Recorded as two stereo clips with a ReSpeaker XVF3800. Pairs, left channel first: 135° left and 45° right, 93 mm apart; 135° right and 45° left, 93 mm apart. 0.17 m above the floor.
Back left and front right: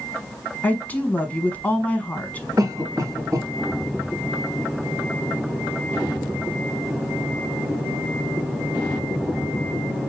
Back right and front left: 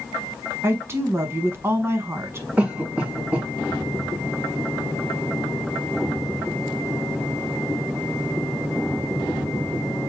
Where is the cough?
20° right, 1.5 m.